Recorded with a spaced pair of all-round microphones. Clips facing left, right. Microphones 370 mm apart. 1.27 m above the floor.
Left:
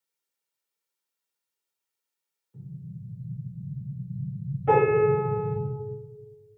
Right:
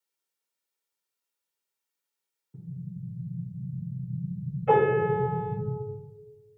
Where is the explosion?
40° right (ahead or behind), 1.0 m.